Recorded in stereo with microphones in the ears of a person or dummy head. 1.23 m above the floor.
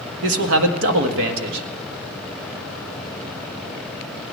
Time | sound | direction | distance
0.2 | a man speaking | 75° right (ahead or behind) | 1.6 m